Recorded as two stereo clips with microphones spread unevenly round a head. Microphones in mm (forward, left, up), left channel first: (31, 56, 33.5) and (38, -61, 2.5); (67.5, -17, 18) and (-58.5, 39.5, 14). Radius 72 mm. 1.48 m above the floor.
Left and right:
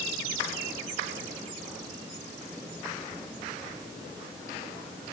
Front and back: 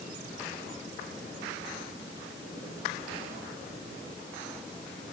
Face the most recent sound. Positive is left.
No sound to turn to.